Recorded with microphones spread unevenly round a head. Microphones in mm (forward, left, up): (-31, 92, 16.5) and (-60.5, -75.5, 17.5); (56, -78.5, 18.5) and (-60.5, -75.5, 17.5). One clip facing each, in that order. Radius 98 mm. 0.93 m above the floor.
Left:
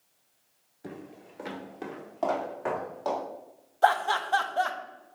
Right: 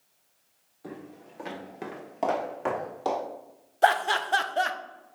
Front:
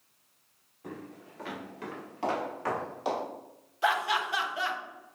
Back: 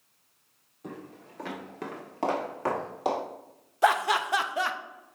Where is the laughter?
160° right, 0.5 m.